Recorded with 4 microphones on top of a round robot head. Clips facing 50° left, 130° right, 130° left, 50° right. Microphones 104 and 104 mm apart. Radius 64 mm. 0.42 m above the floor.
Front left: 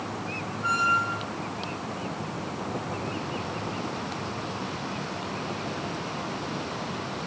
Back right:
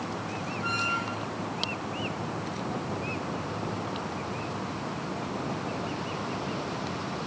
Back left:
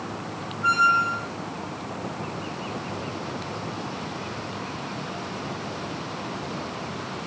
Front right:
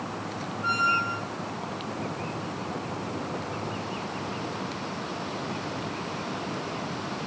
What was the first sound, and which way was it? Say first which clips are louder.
A squeak: front left 8 dB, back left 6 dB; 135° left.